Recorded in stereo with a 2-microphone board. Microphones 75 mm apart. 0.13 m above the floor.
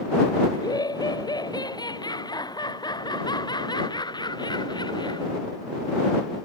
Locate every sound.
0.5 s laughter: 55° left (ahead or behind); by 5.3 s 65° left (ahead or behind)